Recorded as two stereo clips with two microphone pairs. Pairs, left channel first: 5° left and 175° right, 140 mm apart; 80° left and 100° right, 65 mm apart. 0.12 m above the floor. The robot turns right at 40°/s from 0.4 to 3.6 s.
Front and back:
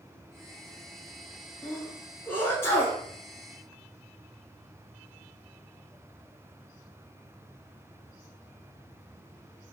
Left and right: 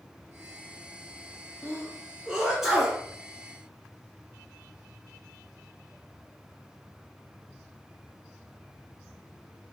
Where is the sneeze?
70° right, 1.2 m; by 3.0 s 15° right, 1.2 m.